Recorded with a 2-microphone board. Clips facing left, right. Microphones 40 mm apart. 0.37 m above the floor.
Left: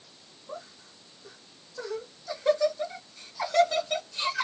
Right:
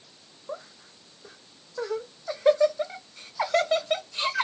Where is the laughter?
35° right (ahead or behind), 1.2 m.